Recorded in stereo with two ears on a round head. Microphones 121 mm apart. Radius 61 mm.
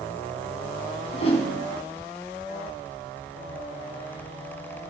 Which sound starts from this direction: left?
A whoosh, at 1.1 s.